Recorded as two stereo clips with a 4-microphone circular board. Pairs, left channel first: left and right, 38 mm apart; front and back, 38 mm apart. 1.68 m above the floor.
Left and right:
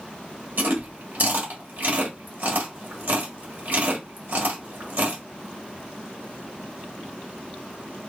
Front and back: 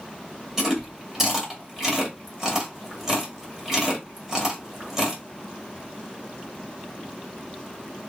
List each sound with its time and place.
0.6 s chewing: 105° right, 1.8 m